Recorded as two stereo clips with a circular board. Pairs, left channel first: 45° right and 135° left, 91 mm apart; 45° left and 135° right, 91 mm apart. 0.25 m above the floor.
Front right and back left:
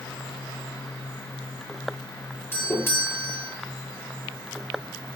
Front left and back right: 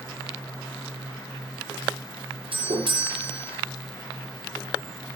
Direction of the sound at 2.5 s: 110° right.